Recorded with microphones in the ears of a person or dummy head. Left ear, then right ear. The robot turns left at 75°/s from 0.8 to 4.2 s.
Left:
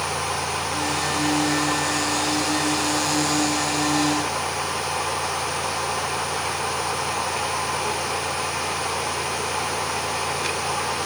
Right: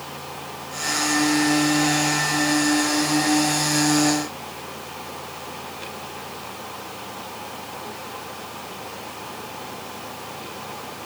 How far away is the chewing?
I don't hear chewing.